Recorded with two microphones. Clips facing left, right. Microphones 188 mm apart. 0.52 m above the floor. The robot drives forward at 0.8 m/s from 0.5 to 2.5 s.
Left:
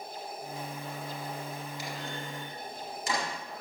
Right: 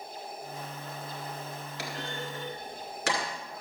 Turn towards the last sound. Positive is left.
turn(degrees=-85)